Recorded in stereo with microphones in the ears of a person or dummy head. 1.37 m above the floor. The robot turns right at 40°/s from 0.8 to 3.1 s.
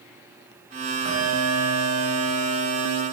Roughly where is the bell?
Behind right.